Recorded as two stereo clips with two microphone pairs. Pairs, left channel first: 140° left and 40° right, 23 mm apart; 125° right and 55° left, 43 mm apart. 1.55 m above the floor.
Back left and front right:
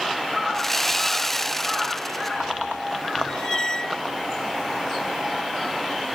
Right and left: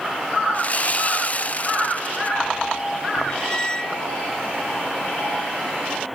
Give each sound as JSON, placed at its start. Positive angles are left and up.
{"t": 0.5, "sound": "sawing", "azimuth_deg": -145}
{"t": 3.3, "sound": "a squeak", "azimuth_deg": 180}